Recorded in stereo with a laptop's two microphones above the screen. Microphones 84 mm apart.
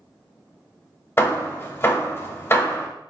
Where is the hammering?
30° left (ahead or behind), 1.1 m.